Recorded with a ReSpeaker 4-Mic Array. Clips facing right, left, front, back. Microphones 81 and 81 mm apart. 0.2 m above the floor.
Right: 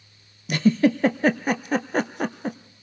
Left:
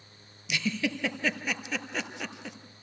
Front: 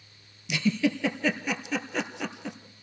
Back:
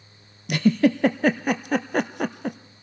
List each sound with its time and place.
0.5 s a giggle: 140° right, 0.9 m